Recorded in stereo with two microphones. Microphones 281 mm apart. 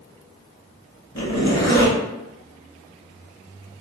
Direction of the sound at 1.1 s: 75° left (ahead or behind).